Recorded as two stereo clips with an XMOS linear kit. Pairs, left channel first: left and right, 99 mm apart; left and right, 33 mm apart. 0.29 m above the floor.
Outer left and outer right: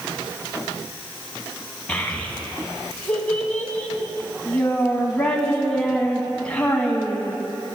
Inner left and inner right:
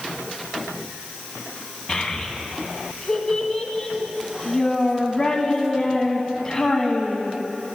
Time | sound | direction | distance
1.9 | a child speaking | 15° left (ahead or behind) | 1.9 m